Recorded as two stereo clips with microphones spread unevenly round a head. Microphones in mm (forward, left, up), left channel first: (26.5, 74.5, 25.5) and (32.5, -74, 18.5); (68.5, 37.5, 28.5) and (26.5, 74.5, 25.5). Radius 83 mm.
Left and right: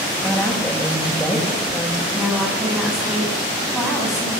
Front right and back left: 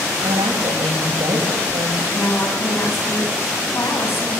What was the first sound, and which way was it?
A woman speaking, 170° left.